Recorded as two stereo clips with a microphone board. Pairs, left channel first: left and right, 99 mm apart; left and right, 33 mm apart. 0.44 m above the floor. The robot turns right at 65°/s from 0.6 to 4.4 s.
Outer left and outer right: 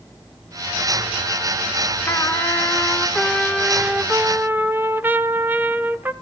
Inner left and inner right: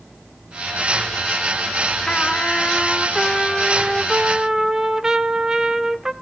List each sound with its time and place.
2.1 s a trumpet: 25° left (ahead or behind), 0.8 m; by 6.1 s 20° right (ahead or behind), 0.8 m